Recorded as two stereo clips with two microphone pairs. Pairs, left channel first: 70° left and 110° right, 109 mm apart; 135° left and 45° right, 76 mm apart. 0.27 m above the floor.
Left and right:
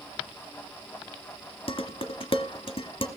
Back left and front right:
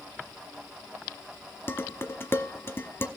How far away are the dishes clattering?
About 1.2 m.